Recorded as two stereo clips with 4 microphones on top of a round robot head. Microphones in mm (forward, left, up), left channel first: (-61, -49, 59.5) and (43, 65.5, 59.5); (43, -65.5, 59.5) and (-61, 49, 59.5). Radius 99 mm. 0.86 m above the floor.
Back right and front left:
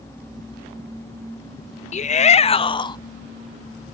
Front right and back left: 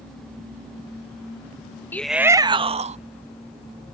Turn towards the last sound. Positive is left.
turn(degrees=170)